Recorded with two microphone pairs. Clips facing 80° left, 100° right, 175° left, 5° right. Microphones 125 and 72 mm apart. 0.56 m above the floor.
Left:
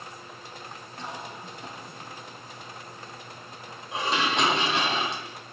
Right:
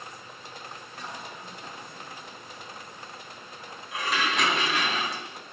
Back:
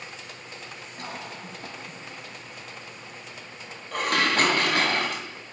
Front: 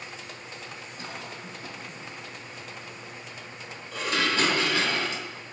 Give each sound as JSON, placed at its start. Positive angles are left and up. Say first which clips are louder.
{"t": 1.0, "sound": "a cough", "louder": "left 3 dB, back 3 dB", "azimuth_deg": 145, "distance_m": 4.5}
{"t": 3.9, "sound": "dishes clattering", "louder": "left 2 dB, back 3 dB", "azimuth_deg": 145, "distance_m": 3.0}